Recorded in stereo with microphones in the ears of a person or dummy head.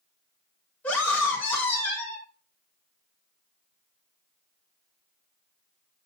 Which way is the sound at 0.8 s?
15° left (ahead or behind).